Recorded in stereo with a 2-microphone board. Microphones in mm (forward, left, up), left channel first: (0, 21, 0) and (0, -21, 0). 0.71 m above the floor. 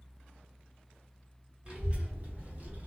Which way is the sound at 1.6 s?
20° right (ahead or behind).